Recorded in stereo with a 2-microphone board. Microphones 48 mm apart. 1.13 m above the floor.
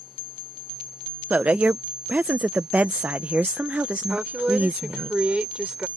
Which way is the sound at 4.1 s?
25° right (ahead or behind).